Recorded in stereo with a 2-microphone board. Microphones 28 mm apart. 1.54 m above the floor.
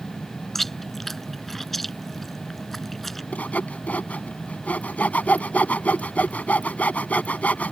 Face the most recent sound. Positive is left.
turn(degrees=65)  # may be behind; listen again after turning